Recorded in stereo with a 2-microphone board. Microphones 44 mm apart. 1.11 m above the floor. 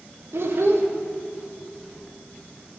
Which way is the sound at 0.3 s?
65° right (ahead or behind).